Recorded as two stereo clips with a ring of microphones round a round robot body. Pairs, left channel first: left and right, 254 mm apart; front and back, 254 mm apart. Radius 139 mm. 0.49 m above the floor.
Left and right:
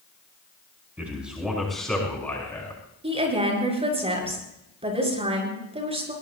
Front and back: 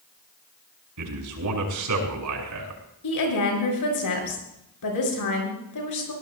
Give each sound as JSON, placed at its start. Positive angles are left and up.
{"t": 1.0, "sound": "a man speaking", "azimuth_deg": -175, "distance_m": 5.5}
{"t": 3.0, "sound": "a woman speaking", "azimuth_deg": -25, "distance_m": 7.0}